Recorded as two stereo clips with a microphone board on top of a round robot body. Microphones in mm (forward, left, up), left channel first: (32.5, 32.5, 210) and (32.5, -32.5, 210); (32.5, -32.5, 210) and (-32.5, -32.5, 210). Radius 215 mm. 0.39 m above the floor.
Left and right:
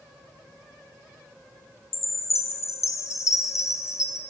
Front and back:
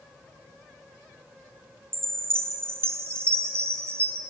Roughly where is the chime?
Behind left.